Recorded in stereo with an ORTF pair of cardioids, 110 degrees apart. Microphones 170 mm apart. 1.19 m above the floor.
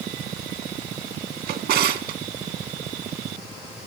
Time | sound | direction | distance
1.5 | a drawer | 70° right | 1.7 m